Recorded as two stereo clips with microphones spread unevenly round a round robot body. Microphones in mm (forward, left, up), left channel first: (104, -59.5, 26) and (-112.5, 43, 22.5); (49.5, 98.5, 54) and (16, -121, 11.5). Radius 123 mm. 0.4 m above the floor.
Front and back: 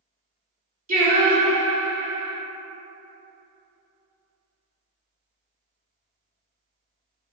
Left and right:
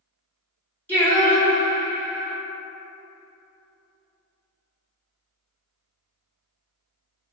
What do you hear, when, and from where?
0.9 s singing: 175° left, 0.9 m